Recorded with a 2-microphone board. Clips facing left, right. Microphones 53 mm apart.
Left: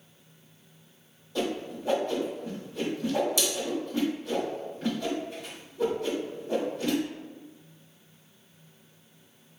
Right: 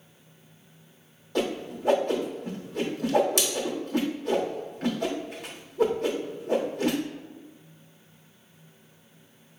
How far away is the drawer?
No drawer in this recording.